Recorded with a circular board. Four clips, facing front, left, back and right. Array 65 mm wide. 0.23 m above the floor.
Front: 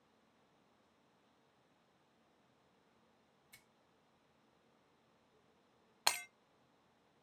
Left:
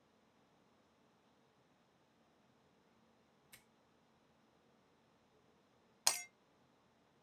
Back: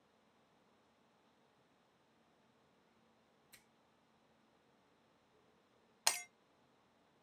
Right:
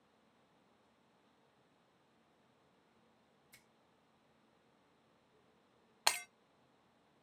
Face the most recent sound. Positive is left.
turn(degrees=-60)